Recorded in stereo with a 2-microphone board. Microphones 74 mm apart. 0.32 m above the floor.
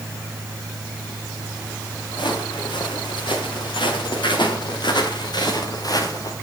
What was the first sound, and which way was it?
Footsteps, 80° left.